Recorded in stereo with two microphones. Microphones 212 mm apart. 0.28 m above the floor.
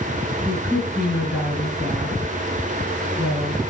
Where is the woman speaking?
10° right (ahead or behind), 3.5 m.